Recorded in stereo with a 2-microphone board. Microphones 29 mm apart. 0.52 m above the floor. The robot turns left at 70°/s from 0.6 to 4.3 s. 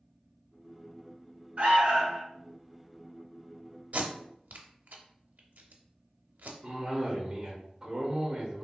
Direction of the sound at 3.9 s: 55° right (ahead or behind).